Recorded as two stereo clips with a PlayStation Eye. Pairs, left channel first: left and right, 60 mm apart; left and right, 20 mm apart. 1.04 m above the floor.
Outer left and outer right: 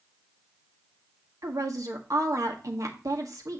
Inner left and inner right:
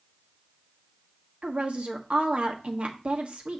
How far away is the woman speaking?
About 1.3 m.